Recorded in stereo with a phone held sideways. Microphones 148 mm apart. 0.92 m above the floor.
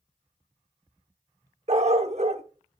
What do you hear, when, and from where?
1.7 s a dog barking: 50° right (ahead or behind), 0.8 m